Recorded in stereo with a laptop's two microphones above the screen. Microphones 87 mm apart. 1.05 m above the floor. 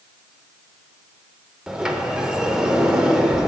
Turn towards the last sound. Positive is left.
turn(degrees=-10)  # may be behind; listen again after turning